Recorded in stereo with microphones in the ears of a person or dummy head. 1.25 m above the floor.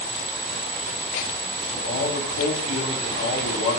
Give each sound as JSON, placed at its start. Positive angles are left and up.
{"t": 1.7, "sound": "a man speaking", "side_deg": 85, "distance_m": 3.5}